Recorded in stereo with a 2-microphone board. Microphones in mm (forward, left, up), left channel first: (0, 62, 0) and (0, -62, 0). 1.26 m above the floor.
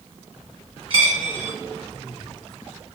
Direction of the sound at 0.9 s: 45° right (ahead or behind).